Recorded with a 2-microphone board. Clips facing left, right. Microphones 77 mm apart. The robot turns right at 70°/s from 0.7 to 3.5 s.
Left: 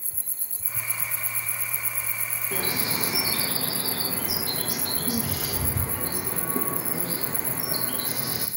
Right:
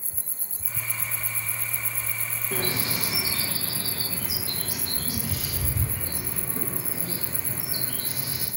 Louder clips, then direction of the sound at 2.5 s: Even; centre (ahead or behind).